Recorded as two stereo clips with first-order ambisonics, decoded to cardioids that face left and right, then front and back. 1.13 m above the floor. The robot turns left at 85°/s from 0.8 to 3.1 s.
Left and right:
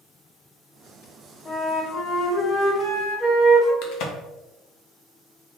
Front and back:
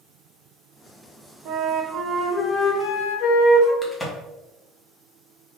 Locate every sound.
1.4 s a flute: 160° left, 1.2 m; by 3.7 s 20° left, 1.2 m
3.8 s a crack: 80° left, 0.8 m